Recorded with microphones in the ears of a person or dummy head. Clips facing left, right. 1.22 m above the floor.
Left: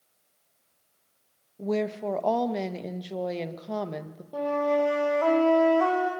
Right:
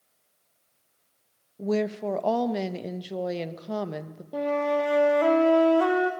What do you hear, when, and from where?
1.6 s a woman speaking: 10° right (ahead or behind), 1.1 m
4.3 s a flute: 30° right (ahead or behind), 1.9 m